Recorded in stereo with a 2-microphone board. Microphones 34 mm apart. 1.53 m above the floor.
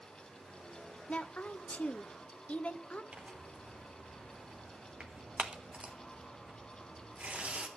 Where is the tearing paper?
40° right (ahead or behind), 1.3 m.